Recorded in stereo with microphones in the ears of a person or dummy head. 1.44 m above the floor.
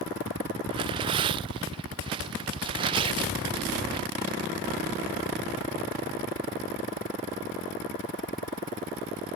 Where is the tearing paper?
25° right (ahead or behind).